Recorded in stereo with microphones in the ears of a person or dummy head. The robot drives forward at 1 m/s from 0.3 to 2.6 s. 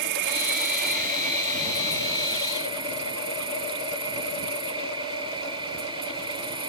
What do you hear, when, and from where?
0.0 s an insect: 65° right (ahead or behind); by 6.7 s 30° right (ahead or behind)